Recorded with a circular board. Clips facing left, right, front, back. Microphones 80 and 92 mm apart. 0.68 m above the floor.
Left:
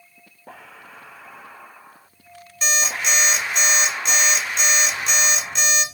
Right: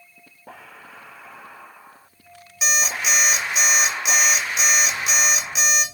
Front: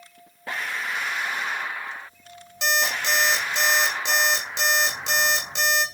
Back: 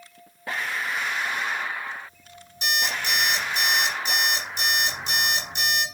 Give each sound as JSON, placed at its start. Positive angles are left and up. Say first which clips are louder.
{"t": 2.6, "sound": "an alarm clock", "louder": "even, front 3 dB", "azimuth_deg": -5, "distance_m": 0.9}